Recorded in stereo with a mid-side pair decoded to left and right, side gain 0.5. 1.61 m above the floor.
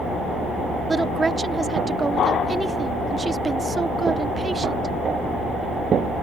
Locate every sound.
0.9 s a woman speaking: 30° right